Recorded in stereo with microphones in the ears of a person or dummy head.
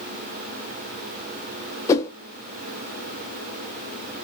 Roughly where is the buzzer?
I don't hear a buzzer.